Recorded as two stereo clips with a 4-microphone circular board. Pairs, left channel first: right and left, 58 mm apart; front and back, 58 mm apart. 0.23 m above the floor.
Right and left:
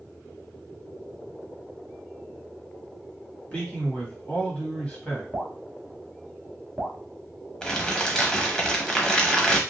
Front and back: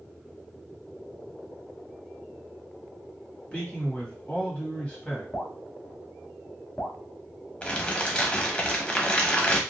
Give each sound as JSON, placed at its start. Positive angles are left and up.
{"t": 3.5, "sound": "a man speaking", "azimuth_deg": -45, "distance_m": 1.2}
{"t": 5.3, "sound": "dripping", "azimuth_deg": 35, "distance_m": 1.0}
{"t": 7.6, "sound": "crumpling", "azimuth_deg": -30, "distance_m": 0.6}